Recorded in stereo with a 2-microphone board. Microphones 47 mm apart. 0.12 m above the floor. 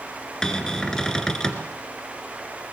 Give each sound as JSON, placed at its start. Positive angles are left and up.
{"t": 0.4, "sound": "a cupboard door", "side_deg": 15, "distance_m": 2.0}